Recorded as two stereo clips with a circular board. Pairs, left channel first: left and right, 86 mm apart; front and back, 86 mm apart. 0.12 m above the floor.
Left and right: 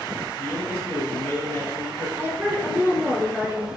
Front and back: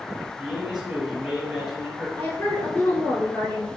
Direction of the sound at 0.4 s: 115° left.